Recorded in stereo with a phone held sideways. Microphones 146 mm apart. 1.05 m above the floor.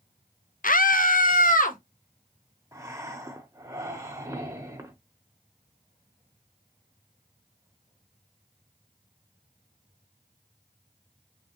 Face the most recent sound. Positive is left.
turn(degrees=-20)  # may be behind; listen again after turning